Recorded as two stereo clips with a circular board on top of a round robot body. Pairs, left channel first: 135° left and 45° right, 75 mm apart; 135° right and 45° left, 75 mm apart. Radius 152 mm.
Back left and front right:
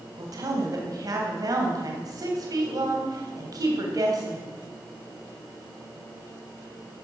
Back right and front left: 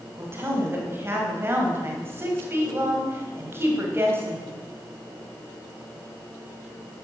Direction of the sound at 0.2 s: 10° right.